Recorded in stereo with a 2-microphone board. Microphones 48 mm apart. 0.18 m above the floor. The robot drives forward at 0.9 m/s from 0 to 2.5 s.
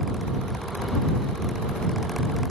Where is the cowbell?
No cowbell in this recording.